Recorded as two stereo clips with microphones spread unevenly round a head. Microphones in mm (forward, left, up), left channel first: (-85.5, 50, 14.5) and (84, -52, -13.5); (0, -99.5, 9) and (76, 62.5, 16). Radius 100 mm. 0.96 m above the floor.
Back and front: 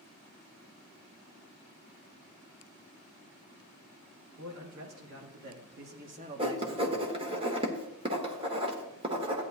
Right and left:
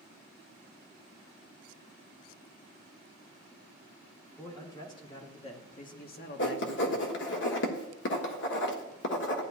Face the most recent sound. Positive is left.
turn(degrees=-95)